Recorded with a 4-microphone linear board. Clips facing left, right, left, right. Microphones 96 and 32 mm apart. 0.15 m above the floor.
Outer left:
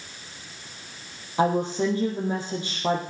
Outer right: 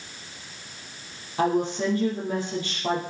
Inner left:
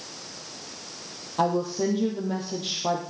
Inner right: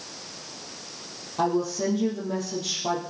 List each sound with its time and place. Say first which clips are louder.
1.4 s a woman speaking: outer left 1 dB, even; 20° left (ahead or behind), 4 m